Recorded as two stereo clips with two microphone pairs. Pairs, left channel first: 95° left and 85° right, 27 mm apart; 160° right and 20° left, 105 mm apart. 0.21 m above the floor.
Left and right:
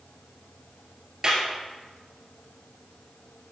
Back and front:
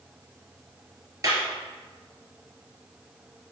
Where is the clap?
30° right, 2.5 m.